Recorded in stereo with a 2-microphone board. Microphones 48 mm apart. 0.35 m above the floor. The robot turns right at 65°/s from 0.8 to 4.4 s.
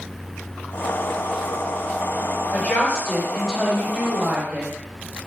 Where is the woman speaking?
120° left, 1.5 m; by 4.7 s 115° right, 1.5 m.